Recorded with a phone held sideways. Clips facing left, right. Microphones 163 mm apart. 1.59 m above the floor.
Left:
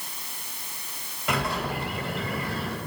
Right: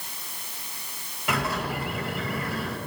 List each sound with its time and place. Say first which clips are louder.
1.3 s a bird: even; 5° right (ahead or behind), 2.5 m